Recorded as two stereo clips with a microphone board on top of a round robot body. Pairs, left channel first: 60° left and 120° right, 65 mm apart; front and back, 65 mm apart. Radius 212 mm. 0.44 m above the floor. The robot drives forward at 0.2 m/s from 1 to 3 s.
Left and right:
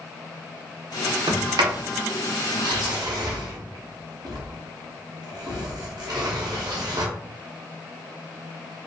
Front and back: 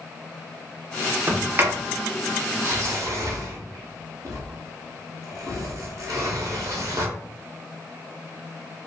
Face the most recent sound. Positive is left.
turn(degrees=-140)